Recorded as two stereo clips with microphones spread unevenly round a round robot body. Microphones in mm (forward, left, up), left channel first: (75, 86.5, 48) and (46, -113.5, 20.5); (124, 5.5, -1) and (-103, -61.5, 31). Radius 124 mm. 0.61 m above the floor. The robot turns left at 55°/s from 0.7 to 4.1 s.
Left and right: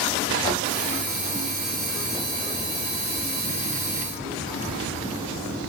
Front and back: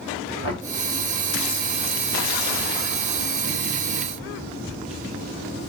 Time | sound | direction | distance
0.4 | knocking | 10° left | 1.6 m